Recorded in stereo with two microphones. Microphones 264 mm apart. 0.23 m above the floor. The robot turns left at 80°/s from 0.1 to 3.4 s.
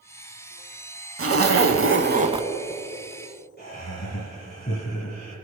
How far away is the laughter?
About 2 m.